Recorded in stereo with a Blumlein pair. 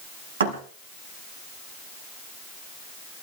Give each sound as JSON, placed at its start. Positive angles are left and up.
{"t": 0.4, "sound": "a thud", "azimuth_deg": -65, "distance_m": 5.5}